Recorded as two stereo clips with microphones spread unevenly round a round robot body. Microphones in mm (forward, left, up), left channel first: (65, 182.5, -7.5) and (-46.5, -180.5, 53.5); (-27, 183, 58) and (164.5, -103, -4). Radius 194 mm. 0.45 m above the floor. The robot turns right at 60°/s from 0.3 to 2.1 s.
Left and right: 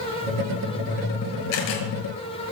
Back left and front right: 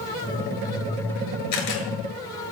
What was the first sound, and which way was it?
A camera shutter, 90° left.